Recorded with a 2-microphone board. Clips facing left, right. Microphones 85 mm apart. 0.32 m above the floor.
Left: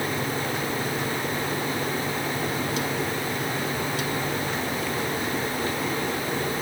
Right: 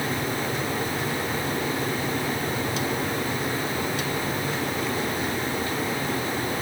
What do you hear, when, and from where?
Only background noise.